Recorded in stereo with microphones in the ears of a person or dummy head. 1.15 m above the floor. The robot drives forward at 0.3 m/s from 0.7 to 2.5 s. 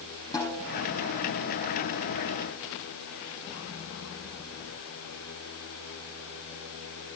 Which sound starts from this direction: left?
A snare drum, at 0.3 s.